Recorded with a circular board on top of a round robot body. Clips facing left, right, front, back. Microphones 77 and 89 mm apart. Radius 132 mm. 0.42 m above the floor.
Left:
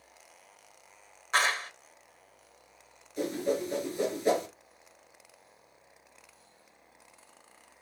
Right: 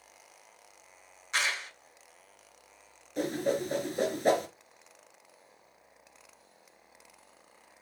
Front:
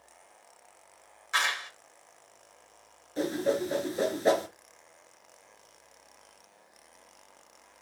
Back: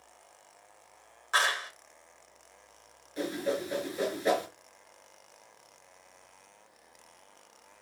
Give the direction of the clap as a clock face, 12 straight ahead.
8 o'clock.